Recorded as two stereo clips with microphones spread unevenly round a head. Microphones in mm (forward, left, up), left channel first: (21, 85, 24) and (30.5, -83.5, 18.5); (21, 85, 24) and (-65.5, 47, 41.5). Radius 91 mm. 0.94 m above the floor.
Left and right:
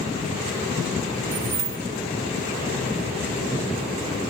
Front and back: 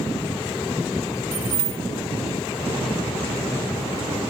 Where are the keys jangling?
155° right, 2.5 m.